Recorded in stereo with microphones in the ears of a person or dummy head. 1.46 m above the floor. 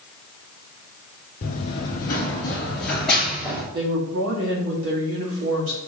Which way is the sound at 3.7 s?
75° right (ahead or behind).